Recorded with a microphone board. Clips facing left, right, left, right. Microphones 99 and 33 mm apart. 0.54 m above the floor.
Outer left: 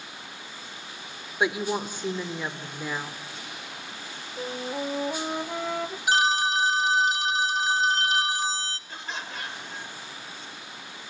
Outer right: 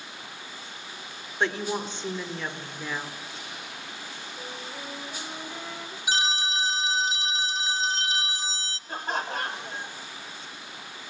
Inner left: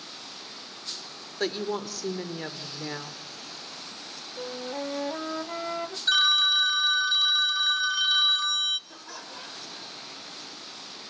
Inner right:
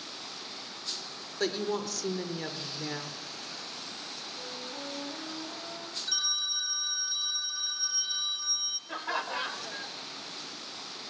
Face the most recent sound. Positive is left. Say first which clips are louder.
# outer right 7 dB, inner right 9 dB
turn(degrees=-50)  # may be behind; listen again after turning